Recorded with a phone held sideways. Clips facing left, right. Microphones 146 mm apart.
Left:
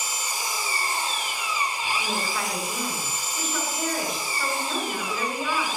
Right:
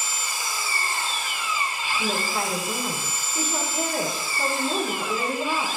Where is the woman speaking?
45° right (ahead or behind), 8.5 m.